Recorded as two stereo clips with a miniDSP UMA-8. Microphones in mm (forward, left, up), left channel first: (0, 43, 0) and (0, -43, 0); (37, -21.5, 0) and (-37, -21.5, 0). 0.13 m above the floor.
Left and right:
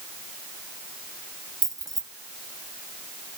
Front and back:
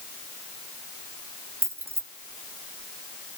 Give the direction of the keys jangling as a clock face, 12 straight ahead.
4 o'clock.